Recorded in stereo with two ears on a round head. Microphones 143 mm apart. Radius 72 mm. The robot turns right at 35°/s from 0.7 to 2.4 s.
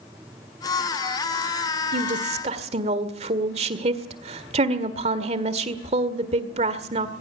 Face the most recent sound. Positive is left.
turn(degrees=-40)  # may be behind; listen again after turning